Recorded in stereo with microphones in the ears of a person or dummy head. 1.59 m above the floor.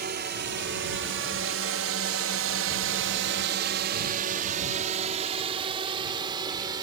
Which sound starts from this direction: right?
A drone, at 0.0 s.